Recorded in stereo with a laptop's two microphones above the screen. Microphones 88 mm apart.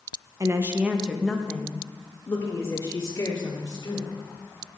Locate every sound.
0.4 s a woman speaking: 40° right (ahead or behind), 0.8 m; by 4.2 s 40° left (ahead or behind), 3 m